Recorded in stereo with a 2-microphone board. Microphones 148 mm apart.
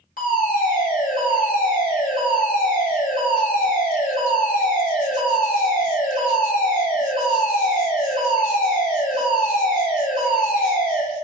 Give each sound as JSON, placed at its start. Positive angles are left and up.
{"t": 0.2, "sound": "a fire alarm", "side_deg": 65, "distance_m": 9.0}